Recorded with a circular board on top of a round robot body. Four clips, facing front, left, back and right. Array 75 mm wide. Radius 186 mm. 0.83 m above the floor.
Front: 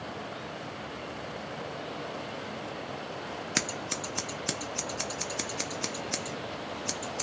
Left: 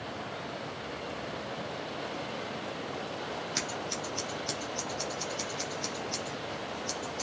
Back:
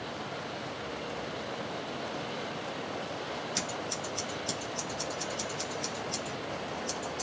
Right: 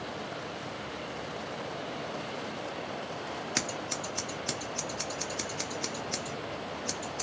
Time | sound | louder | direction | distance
3.5 | scissors | right 1 dB, front 1 dB | 20° right | 0.6 m